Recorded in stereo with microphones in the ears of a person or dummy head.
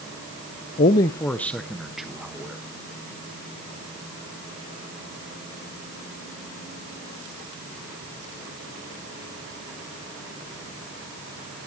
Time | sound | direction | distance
0.8 | a man speaking | 25° left (ahead or behind) | 0.5 m